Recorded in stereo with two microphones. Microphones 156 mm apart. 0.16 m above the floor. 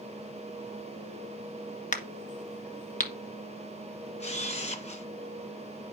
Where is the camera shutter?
45° left (ahead or behind), 1.8 m.